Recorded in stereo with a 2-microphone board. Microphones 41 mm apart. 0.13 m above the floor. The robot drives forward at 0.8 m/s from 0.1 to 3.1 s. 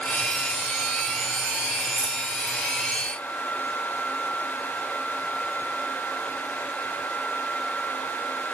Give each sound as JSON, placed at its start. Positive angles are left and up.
{"t": 2.0, "sound": "a dropped coin", "side_deg": 40, "distance_m": 2.5}